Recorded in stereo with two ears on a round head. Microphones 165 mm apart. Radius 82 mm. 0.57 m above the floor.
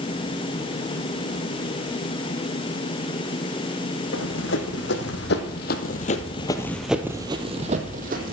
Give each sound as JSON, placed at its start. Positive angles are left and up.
{"t": 4.1, "sound": "running footsteps", "side_deg": 75, "distance_m": 3.0}